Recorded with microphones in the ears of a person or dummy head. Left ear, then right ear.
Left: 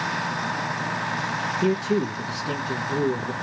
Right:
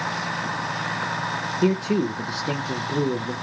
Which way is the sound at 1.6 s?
30° right (ahead or behind).